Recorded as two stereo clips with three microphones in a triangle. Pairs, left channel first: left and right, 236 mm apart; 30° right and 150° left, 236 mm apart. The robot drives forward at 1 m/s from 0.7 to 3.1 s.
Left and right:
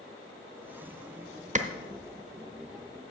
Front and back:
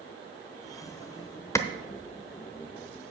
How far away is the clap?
About 0.8 m.